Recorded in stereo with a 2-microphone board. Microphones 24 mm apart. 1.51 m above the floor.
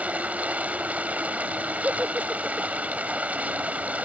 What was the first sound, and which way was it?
Running water, 75° right (ahead or behind).